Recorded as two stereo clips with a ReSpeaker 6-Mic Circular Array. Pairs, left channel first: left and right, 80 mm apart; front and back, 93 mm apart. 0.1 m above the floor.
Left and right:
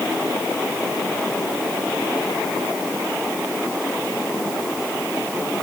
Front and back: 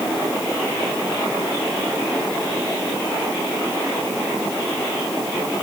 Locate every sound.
Only background noise.